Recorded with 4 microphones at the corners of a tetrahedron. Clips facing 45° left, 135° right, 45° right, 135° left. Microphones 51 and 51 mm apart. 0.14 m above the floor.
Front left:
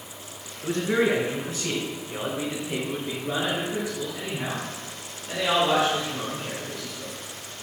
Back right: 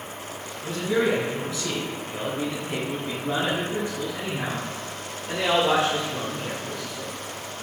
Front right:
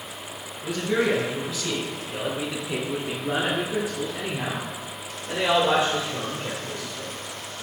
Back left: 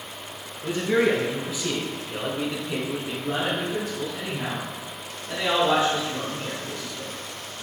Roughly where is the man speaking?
Left.